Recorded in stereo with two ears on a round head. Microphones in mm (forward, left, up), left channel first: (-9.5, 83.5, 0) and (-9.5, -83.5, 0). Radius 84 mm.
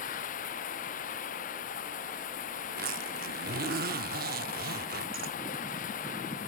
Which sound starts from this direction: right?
A zipper, at 2.6 s.